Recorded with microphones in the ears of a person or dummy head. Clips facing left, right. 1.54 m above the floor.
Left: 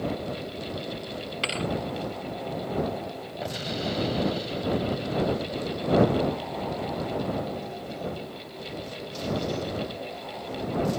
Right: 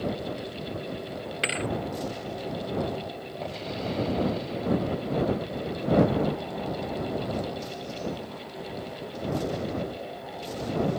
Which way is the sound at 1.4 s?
20° right (ahead or behind).